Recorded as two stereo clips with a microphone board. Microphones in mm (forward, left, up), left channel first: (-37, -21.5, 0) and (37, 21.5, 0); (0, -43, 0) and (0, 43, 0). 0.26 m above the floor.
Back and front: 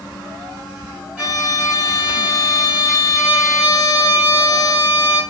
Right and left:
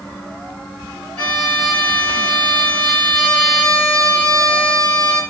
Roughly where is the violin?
Ahead right.